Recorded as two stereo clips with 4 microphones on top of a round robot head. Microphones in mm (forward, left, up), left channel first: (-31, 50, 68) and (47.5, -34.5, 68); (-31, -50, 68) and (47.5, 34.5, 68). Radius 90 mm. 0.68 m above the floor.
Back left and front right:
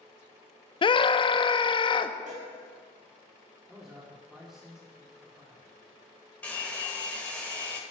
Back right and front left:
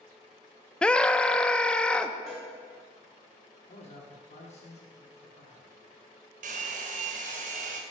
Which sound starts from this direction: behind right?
A man speaking, at 3.7 s.